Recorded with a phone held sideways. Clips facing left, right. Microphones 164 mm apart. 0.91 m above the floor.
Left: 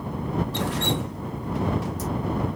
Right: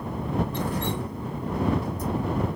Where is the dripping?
80° left.